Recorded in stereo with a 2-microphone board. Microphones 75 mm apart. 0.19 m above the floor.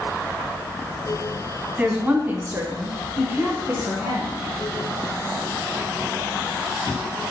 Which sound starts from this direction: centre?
A woman speaking, at 1.8 s.